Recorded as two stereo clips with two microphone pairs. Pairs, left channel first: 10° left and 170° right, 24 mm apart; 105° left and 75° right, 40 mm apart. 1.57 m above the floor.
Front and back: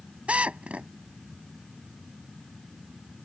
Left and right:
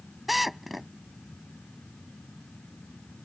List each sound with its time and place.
0.3 s a drill: 160° right